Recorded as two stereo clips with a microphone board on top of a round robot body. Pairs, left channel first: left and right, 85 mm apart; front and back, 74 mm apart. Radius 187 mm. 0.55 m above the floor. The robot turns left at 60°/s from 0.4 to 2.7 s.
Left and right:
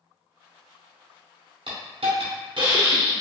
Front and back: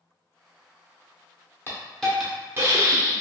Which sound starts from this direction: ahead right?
A hiss, at 1.7 s.